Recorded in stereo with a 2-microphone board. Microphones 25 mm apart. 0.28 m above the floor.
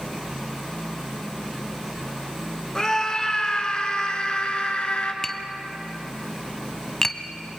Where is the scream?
25° left (ahead or behind), 3 m; by 5.1 s 55° left (ahead or behind), 3.5 m.